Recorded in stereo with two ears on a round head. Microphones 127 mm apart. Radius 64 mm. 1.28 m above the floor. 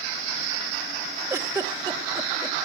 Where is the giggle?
20° right (ahead or behind), 1.2 m.